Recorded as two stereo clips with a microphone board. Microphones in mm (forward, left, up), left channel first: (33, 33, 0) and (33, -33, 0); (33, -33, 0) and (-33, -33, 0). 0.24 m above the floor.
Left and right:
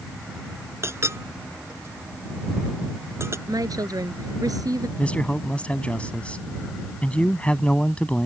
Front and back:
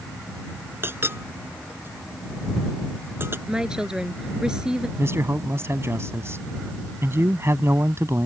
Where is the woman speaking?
100° right.